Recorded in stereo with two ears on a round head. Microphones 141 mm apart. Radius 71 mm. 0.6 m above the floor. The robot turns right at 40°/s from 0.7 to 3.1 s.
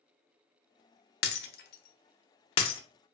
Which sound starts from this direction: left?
Breaking glass, at 1.2 s.